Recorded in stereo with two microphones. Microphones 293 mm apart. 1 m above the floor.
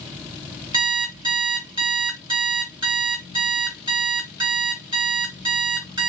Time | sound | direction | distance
0.7 | an alarm clock | 15° right (ahead or behind) | 2 m